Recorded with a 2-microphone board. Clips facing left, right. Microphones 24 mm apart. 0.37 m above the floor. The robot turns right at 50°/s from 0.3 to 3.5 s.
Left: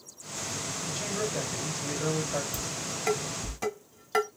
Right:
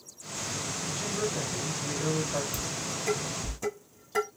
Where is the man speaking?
75° left, 2.0 m; by 2.4 s 155° left, 2.0 m.